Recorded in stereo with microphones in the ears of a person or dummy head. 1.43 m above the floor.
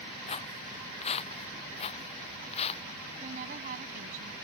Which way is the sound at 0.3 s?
35° left (ahead or behind).